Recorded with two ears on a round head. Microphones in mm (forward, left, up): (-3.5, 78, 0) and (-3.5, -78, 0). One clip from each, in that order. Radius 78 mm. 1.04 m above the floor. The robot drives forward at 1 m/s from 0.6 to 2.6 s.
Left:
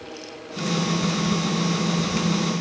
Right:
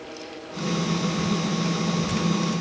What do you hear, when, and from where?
Only background noise.